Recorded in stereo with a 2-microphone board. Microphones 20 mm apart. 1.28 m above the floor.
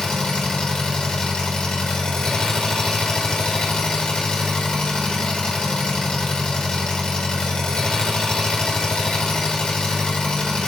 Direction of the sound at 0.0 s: 50° left (ahead or behind).